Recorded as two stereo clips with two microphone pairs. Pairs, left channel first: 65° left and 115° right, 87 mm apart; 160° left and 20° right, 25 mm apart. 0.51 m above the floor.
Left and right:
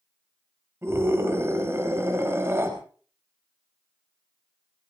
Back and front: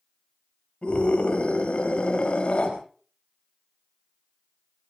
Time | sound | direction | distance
0.8 | a scream | 170° right | 4 m